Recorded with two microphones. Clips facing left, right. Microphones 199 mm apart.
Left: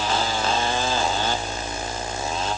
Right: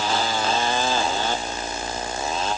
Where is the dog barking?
No dog barking in this recording.